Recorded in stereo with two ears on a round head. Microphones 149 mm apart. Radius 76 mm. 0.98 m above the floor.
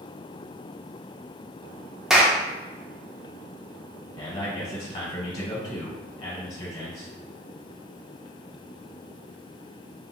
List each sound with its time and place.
2.1 s a clap: 5° right (ahead or behind), 0.5 m
4.2 s a man speaking: 30° left (ahead or behind), 1.1 m